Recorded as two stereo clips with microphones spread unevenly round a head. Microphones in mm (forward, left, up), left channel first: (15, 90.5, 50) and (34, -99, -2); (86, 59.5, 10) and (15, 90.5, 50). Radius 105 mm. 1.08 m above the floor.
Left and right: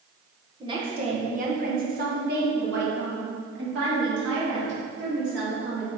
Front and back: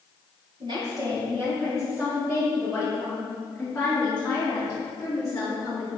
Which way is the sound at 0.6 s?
140° right.